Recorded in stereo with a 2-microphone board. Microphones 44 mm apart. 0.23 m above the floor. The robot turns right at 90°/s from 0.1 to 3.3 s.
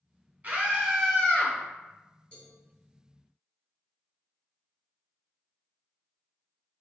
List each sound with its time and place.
0.4 s a scream: 45° right, 2.0 m; by 1.5 s 55° left, 2.0 m
2.3 s a cowbell: 25° left (ahead or behind), 1.7 m